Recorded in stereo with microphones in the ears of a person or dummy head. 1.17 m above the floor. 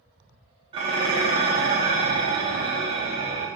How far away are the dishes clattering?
About 0.6 m.